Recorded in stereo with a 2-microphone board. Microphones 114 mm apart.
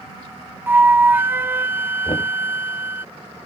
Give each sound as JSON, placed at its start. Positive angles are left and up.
{"t": 0.7, "sound": "a flute", "side_deg": -20}
{"t": 2.0, "sound": "knocking", "side_deg": 50}